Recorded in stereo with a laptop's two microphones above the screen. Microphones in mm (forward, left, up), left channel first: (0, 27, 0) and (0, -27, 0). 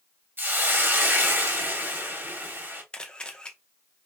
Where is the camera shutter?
20° left (ahead or behind), 0.7 m.